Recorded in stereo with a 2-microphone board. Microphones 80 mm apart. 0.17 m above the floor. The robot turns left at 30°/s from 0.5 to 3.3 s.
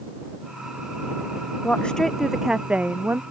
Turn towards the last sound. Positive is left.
turn(degrees=-30)